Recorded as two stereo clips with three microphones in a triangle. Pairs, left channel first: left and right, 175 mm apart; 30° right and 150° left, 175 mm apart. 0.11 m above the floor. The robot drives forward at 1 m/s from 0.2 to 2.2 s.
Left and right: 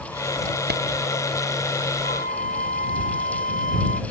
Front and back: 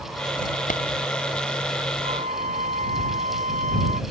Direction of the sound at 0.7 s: 70° right.